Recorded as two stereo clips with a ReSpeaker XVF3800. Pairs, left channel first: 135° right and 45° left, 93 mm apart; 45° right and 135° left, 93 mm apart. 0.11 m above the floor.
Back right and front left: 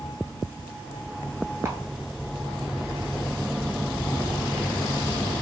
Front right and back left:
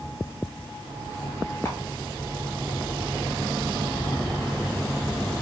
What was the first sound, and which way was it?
A camera shutter, 5° right.